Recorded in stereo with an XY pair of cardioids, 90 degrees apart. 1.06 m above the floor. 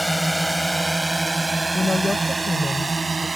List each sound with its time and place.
0.0 s a drone: straight ahead; by 3.4 s 30° right
1.7 s a woman speaking: 25° left